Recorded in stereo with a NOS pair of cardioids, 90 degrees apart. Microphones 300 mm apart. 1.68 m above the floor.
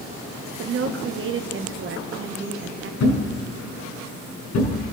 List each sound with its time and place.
0.6 s a woman speaking: 45° right, 1.6 m
3.0 s a thud: 70° left, 5 m